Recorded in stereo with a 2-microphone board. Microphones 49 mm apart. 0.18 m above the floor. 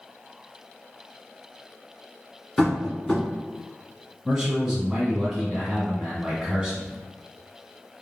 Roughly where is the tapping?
Centre.